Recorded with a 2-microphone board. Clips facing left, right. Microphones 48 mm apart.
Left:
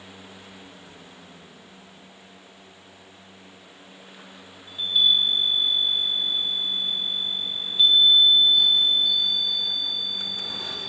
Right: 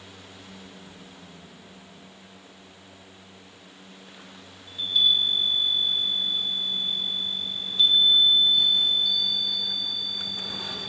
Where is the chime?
15° left (ahead or behind), 1.3 m.